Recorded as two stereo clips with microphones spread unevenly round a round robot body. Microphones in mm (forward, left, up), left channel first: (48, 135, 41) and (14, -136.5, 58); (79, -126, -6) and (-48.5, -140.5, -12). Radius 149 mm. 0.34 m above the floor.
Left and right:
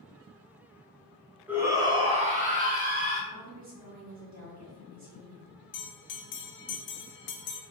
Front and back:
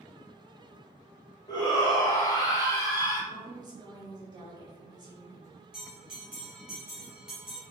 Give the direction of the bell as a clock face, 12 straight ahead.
9 o'clock.